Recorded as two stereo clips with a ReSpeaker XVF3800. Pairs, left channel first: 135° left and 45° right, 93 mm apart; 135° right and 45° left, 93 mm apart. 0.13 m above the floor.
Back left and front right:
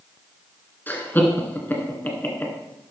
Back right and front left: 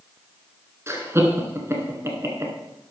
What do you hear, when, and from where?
0.9 s laughter: 80° left, 1.9 m